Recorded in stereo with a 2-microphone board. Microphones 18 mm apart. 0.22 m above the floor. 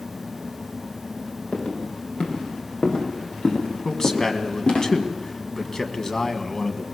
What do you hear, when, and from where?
1.5 s footsteps: 65° left (ahead or behind), 6.5 m; by 4.8 s 70° left (ahead or behind), 5 m
3.9 s a man speaking: 35° left (ahead or behind), 1.7 m